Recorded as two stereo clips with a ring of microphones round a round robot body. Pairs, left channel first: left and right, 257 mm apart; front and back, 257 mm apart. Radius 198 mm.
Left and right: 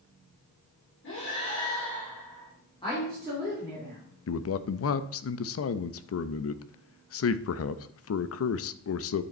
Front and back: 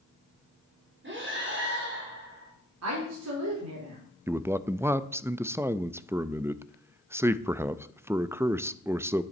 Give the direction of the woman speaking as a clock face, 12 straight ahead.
6 o'clock.